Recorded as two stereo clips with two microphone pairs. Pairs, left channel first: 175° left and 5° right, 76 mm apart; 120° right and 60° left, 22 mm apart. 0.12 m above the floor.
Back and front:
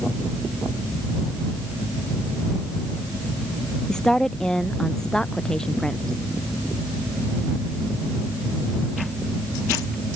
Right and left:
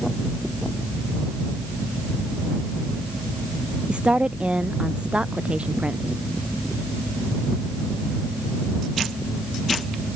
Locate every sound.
3.9 s a woman speaking: 95° left